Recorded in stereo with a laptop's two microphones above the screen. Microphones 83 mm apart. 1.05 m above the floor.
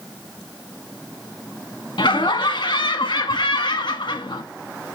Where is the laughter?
70° left (ahead or behind), 1.3 m.